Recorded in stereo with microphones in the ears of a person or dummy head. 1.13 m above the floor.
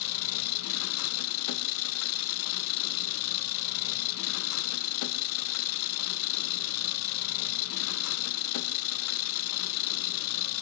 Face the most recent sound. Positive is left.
turn(degrees=80)